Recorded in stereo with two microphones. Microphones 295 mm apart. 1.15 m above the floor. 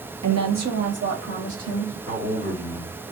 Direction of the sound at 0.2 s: 70° right (ahead or behind).